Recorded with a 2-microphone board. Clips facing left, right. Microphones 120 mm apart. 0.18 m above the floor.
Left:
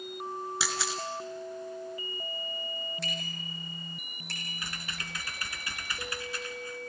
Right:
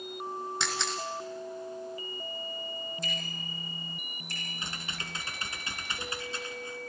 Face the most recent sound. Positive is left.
turn(degrees=-25)  # may be behind; listen again after turning